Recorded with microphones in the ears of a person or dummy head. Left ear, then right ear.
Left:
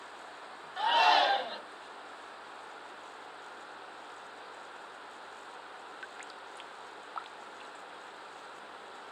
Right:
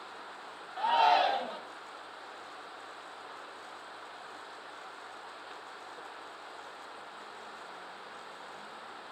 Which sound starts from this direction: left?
A shout, at 0.8 s.